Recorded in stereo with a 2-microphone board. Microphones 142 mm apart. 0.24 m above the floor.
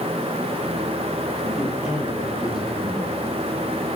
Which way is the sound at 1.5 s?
10° right (ahead or behind).